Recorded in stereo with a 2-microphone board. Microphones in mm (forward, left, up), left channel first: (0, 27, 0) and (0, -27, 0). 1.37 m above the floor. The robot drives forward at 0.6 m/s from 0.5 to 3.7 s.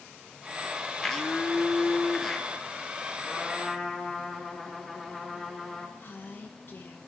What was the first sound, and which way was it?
A blender, 5° left (ahead or behind).